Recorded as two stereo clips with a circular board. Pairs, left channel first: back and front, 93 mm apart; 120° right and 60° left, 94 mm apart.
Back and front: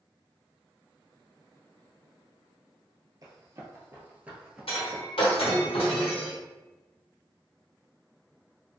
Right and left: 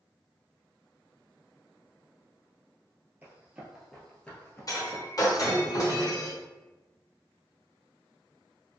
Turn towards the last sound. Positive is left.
turn(degrees=-170)